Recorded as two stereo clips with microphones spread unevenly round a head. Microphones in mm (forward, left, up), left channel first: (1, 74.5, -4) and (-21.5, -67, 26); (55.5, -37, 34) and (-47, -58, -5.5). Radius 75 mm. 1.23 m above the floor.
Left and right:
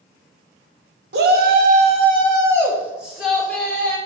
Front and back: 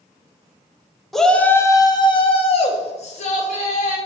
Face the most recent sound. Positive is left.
turn(degrees=0)